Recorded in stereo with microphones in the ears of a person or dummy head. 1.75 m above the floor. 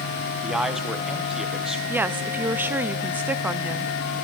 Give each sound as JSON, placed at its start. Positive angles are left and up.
{"t": 0.4, "sound": "a man speaking", "side_deg": -5, "distance_m": 1.4}
{"t": 1.9, "sound": "a woman speaking", "side_deg": -10, "distance_m": 0.6}